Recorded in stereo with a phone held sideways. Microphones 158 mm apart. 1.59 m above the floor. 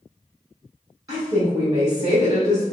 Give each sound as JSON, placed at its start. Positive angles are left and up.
{"t": 1.1, "sound": "a woman speaking", "side_deg": -25, "distance_m": 1.3}